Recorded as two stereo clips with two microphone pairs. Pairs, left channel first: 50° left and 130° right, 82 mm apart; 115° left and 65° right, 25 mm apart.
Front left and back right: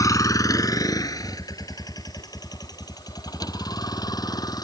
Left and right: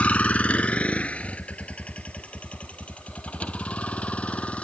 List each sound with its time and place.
0.0 s a vehicle: 95° left; by 4.6 s 90° left